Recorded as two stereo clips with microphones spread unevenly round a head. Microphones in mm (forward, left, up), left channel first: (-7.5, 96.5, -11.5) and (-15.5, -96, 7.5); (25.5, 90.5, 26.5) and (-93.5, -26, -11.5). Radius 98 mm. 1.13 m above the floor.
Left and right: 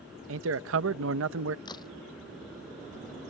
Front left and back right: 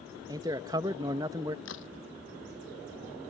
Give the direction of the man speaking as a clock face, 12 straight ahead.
2 o'clock.